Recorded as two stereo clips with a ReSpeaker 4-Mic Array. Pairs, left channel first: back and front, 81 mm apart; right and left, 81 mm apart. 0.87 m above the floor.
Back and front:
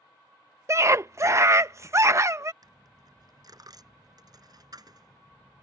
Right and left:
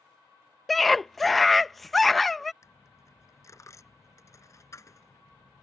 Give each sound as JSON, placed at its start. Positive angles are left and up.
{"t": 0.7, "sound": "a scream", "azimuth_deg": -5}
{"t": 2.6, "sound": "a dropped coin", "azimuth_deg": -40}